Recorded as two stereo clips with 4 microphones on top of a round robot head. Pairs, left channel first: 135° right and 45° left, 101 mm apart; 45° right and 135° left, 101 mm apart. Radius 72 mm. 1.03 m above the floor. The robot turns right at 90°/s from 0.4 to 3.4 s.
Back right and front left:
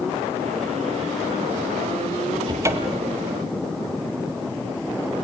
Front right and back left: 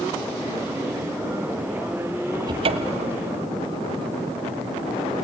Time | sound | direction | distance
2.5 | a cupboard door | 90° left | 1.4 m